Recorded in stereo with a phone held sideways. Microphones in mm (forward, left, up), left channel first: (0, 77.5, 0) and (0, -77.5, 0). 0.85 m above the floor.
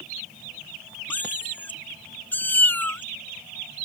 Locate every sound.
1.1 s a cat meowing: 10° left (ahead or behind)